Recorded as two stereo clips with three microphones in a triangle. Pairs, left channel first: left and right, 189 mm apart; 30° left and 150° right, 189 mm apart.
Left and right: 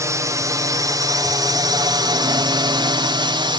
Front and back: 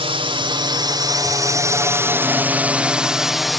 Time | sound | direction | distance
0.0 | a drone | 145° right | ?